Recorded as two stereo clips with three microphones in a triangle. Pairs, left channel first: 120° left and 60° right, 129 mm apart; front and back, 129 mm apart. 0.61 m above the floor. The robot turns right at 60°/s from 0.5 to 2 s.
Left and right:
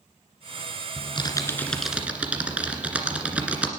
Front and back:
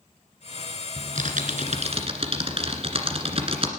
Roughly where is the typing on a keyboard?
Behind.